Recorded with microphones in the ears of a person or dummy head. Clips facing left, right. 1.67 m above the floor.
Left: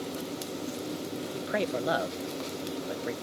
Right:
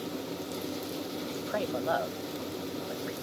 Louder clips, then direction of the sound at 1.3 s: Left 2 dB; 20° left (ahead or behind).